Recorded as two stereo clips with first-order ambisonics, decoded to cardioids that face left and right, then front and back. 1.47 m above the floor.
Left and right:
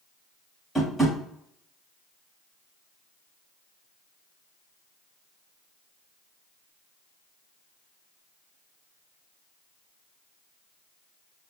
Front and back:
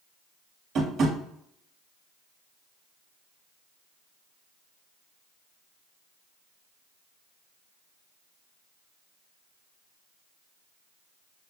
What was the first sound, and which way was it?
Tapping, 175° left.